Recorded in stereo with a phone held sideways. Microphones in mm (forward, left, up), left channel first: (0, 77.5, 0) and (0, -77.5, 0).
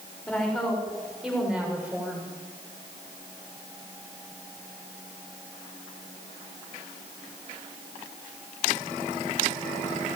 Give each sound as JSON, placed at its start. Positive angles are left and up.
{"t": 0.3, "sound": "a woman speaking", "side_deg": 5, "distance_m": 6.5}